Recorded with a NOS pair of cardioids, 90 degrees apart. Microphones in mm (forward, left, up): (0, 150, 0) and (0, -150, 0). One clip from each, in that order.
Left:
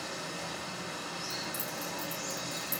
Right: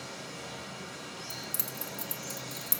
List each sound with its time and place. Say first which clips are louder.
0.0 s running water: left 4 dB; 40° left, 1.4 m
1.3 s keys jangling: left 3 dB; 60° right, 1.5 m